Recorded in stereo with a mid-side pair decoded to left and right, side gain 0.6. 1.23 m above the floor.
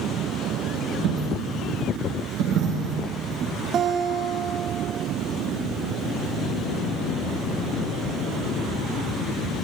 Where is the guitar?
50° right, 1.9 m.